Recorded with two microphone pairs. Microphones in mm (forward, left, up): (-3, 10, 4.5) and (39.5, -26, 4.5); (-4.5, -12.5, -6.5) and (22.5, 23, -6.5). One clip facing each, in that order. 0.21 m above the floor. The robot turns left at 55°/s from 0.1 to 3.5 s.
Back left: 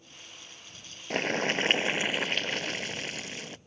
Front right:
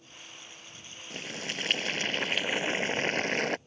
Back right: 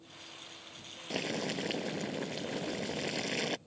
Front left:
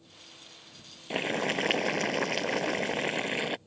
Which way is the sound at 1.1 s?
115° left.